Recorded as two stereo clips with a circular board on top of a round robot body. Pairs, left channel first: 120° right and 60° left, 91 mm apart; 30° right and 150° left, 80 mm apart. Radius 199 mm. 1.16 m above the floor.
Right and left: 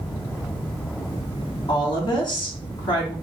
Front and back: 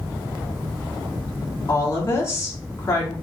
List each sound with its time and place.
1.7 s a woman speaking: 80° right, 4 m